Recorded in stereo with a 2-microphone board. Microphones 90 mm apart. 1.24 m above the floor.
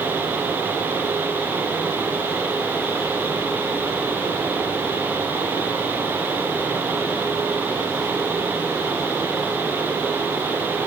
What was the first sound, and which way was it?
Only background noise.